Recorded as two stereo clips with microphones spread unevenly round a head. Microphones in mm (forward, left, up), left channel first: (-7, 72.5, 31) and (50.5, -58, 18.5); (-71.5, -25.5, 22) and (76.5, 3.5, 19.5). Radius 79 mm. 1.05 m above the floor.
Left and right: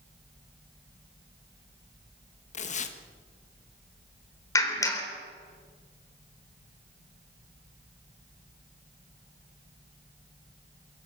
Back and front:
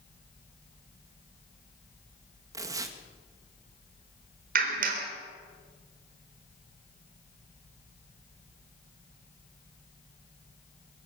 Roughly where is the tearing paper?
Left.